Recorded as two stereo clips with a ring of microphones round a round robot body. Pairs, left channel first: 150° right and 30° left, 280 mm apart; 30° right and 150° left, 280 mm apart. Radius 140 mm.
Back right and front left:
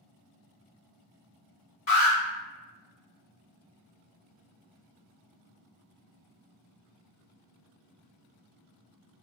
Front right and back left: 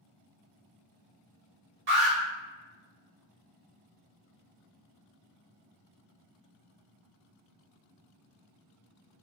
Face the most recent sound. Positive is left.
turn(degrees=-165)